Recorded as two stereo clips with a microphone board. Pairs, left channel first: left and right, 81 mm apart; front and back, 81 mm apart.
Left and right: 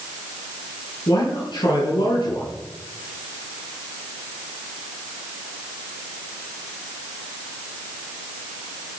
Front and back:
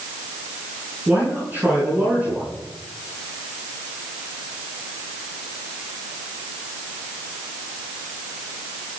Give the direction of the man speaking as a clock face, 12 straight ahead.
8 o'clock.